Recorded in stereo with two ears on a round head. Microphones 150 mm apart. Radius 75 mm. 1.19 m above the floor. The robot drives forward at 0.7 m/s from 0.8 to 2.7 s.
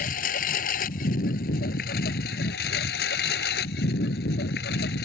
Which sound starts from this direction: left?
A lawn mower, at 0.0 s.